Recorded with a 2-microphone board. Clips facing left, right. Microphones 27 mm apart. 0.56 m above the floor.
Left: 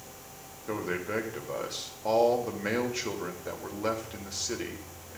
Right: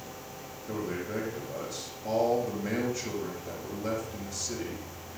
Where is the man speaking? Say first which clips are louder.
Left 2 dB; 55° left (ahead or behind), 1.9 m.